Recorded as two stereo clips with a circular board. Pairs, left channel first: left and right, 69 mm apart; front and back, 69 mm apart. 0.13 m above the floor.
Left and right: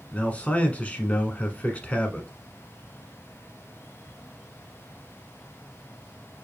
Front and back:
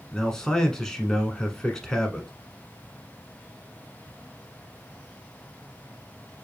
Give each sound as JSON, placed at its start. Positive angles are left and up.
{"t": 0.1, "sound": "a man speaking", "azimuth_deg": 65, "distance_m": 1.1}